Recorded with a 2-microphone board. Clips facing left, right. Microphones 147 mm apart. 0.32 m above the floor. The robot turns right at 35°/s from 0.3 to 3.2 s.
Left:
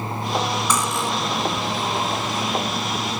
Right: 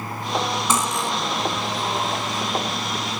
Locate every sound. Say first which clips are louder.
0.7 s cutlery clinking: even; 25° right (ahead or behind), 1.5 m; by 1.1 s 10° right (ahead or behind), 1.5 m